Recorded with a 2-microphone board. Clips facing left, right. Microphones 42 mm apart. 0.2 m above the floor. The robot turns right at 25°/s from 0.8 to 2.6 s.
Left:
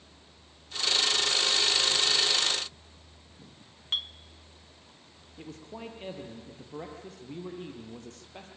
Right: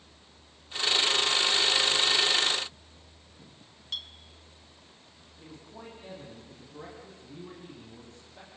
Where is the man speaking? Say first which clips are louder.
Left 5 dB; 75° left (ahead or behind), 6.5 m.